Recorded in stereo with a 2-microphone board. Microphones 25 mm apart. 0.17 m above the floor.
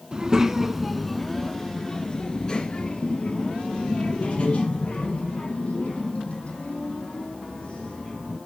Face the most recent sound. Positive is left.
turn(degrees=55)  # may be behind; listen again after turning